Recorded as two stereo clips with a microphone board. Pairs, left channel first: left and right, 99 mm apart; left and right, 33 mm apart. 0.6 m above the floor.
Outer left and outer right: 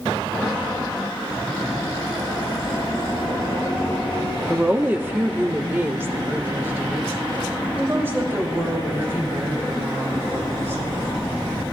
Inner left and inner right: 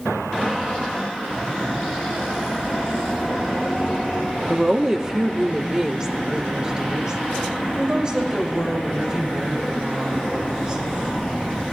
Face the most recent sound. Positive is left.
turn(degrees=-25)  # may be behind; listen again after turning